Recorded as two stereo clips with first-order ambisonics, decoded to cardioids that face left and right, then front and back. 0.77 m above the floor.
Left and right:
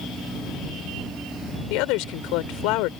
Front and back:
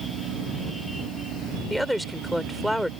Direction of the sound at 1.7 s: 90° left.